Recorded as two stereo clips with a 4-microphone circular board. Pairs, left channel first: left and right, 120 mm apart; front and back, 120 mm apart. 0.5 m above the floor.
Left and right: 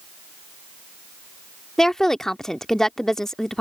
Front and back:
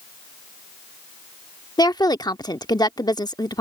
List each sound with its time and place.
1.8 s a woman speaking: 5° left